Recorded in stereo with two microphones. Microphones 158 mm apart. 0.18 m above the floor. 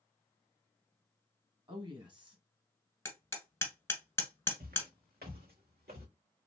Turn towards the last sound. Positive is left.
turn(degrees=-80)